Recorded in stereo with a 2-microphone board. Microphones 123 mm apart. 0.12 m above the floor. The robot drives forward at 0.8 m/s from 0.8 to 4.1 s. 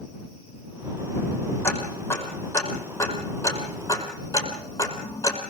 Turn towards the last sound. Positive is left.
turn(degrees=25)  # may be behind; listen again after turning